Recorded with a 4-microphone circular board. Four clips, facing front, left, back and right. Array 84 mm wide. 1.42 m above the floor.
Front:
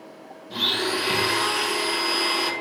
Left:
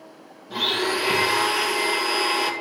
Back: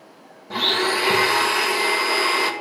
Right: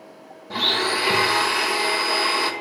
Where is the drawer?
I don't hear a drawer.